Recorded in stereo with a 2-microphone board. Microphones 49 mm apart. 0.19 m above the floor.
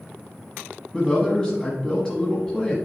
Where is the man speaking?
15° left (ahead or behind), 1.1 m.